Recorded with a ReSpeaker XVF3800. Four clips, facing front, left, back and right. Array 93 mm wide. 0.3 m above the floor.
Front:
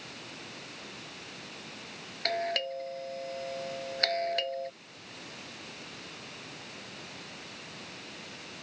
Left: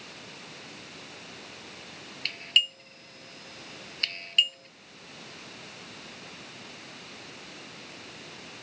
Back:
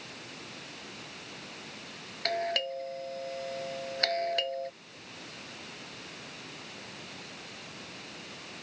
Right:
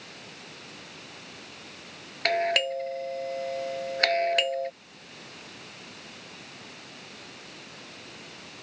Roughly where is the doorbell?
Right.